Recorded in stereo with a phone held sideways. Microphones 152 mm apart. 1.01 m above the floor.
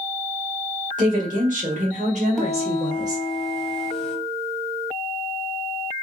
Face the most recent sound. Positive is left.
turn(degrees=5)  # may be behind; listen again after turning